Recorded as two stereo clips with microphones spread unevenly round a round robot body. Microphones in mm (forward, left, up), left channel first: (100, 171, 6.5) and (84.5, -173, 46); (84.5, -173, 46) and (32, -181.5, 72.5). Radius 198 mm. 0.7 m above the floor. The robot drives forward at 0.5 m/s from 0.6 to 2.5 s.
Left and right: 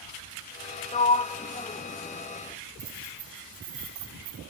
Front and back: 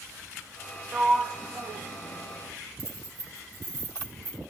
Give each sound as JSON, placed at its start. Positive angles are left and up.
{"t": 0.9, "sound": "a sliding door", "azimuth_deg": 100, "distance_m": 0.6}
{"t": 2.8, "sound": "keys jangling", "azimuth_deg": -155, "distance_m": 5.0}